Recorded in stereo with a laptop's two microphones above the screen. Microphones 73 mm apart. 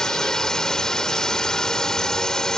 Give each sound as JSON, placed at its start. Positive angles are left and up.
{"t": 0.0, "sound": "a drone", "side_deg": 10}